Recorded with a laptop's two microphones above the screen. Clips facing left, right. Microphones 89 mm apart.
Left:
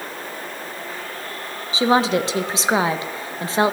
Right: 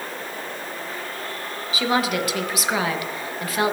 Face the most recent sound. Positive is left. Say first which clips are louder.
# left 5 dB
turn(degrees=25)  # may be behind; listen again after turning